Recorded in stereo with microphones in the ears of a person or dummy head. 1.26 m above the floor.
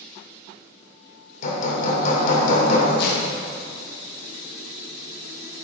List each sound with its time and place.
1.4 s hammering: 50° left (ahead or behind), 2.0 m
3.0 s tearing paper: 55° left (ahead or behind), 2 m